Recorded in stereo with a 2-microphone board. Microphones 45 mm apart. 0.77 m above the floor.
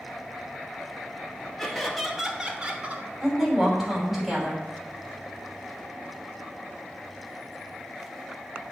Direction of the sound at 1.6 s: 5° left (ahead or behind).